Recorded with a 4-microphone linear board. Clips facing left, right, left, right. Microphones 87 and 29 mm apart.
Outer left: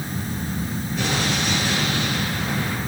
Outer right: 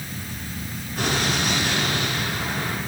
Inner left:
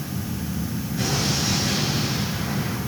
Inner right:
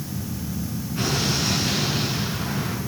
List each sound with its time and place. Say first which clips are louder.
1.0 s an explosion: outer right 1 dB, inner right 1 dB; 50° right (ahead or behind), 8 m